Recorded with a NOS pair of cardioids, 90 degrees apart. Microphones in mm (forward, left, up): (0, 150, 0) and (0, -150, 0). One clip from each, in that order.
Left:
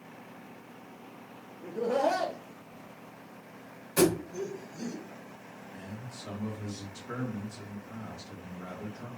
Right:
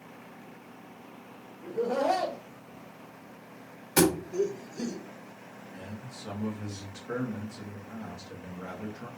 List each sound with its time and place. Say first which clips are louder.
1.6 s laughter: even; 15° left, 1.1 m; by 5.0 s 60° right, 2 m
4.0 s a thud: right 1 dB; 55° right, 1.6 m
5.7 s a man speaking: right 2 dB; straight ahead, 1.9 m